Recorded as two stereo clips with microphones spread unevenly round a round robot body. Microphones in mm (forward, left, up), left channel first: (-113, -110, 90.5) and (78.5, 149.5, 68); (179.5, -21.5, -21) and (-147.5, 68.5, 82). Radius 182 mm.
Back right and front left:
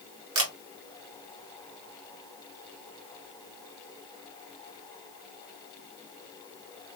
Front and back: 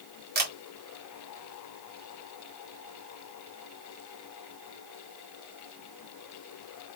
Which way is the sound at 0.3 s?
95° left.